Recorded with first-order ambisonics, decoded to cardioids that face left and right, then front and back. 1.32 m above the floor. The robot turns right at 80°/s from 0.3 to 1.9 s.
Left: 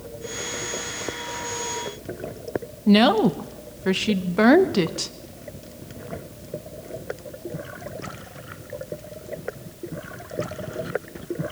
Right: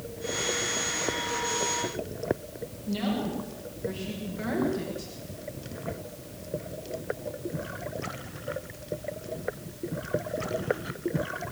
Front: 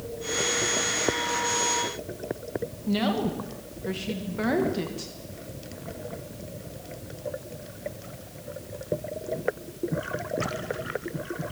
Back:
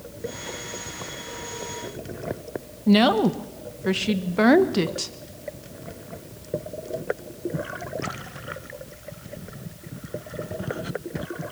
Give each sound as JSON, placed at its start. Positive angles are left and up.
{"t": 2.9, "sound": "a woman speaking", "azimuth_deg": 125, "distance_m": 1.4}